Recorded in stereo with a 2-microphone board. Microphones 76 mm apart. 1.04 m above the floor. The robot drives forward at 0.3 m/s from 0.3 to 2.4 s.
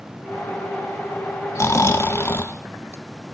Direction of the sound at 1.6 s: 35° left (ahead or behind).